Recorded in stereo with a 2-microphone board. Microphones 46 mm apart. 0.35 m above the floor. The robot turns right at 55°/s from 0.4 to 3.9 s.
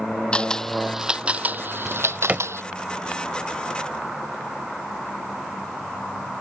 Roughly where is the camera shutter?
Left.